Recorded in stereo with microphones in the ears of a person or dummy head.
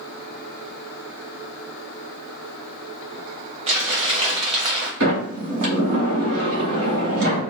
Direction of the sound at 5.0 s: 70° right (ahead or behind).